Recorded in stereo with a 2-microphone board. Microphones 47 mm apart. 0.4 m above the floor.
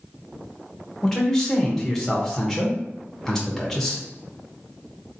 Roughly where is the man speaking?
Centre.